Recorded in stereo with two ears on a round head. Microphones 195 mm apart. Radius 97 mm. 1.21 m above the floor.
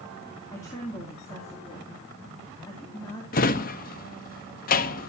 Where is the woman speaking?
15° left (ahead or behind), 2.5 m.